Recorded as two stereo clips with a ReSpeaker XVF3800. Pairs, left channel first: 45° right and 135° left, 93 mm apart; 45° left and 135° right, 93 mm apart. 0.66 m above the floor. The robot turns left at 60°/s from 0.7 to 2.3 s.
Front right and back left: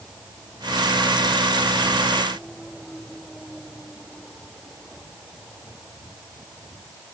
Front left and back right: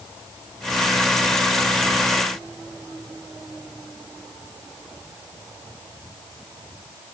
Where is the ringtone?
No ringtone in this recording.